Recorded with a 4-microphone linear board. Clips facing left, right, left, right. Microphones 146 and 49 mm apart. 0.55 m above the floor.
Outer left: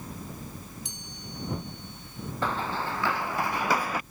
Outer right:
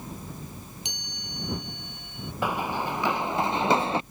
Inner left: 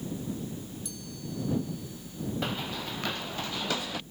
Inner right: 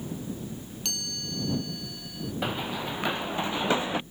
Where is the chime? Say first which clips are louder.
Even, inner right 4 dB; 75° right (ahead or behind).